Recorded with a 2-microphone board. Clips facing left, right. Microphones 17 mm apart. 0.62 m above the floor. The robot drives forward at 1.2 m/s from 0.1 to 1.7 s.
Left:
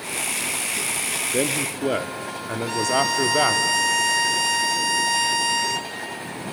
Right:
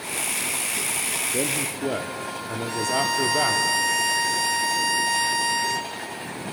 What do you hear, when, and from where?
1.3 s a man speaking: 35° left (ahead or behind), 0.8 m; by 3.7 s 25° left (ahead or behind), 1.0 m
2.7 s a violin: 20° left (ahead or behind), 1.3 m